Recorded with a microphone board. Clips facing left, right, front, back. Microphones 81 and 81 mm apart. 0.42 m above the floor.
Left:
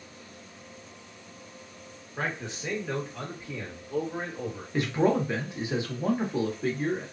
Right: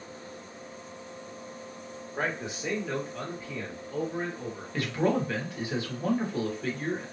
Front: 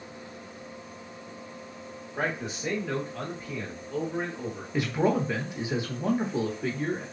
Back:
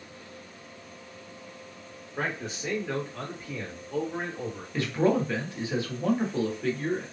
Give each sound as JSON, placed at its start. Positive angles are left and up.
{"t": 2.2, "sound": "a man speaking", "azimuth_deg": -70, "distance_m": 1.2}
{"t": 4.7, "sound": "a man speaking", "azimuth_deg": 55, "distance_m": 0.9}